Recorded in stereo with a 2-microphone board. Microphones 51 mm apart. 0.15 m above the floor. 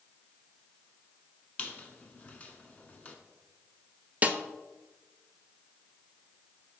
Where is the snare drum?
30° right (ahead or behind), 0.5 m.